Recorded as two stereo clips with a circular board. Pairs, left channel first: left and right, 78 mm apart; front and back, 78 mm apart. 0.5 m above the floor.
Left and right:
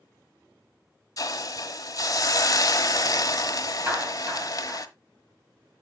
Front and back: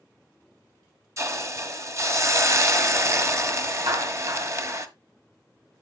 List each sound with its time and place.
1.2 s a hiss: 130° left, 0.9 m
3.9 s a clap: 155° right, 3 m